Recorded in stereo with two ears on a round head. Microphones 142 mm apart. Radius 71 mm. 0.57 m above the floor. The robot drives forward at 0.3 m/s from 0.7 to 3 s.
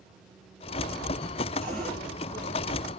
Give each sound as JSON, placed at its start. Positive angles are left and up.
{"t": 1.6, "sound": "a cupboard door", "side_deg": 5, "distance_m": 7.0}